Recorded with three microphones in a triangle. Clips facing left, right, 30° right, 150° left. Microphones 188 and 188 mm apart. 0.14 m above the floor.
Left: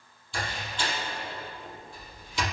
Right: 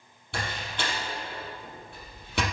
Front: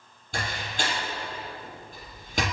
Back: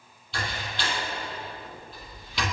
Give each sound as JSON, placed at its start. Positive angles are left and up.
{"t": 0.3, "sound": "a door slam", "azimuth_deg": -70, "distance_m": 3.5}